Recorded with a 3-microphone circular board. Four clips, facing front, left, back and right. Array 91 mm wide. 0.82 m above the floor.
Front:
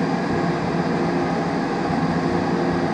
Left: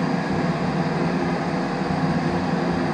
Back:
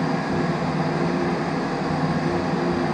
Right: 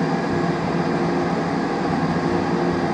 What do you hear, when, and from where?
0.0 s an engine running: 60° right, 0.8 m